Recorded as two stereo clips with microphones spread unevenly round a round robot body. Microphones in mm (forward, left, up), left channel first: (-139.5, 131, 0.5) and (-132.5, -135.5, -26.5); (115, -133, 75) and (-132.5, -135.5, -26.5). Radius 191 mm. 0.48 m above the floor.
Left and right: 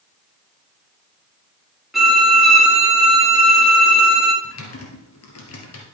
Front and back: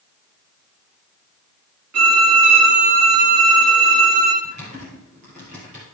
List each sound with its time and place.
1.9 s a violin: straight behind, 3 m
4.4 s typing on a keyboard: 110° left, 3 m